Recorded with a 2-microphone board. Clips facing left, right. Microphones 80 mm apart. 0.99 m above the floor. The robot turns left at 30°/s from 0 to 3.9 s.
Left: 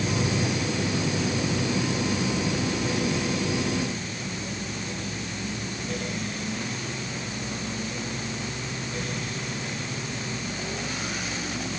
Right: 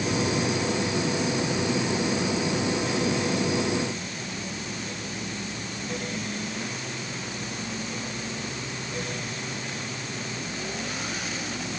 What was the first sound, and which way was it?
Only background noise.